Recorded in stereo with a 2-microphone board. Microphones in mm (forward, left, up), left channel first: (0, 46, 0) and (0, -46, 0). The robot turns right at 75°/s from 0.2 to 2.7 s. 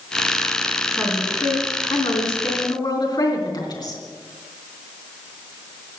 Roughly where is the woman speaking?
Ahead.